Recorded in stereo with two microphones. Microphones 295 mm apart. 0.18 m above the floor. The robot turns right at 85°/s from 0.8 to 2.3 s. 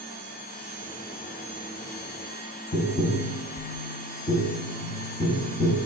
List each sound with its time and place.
2.7 s tapping: 20° left (ahead or behind), 0.7 m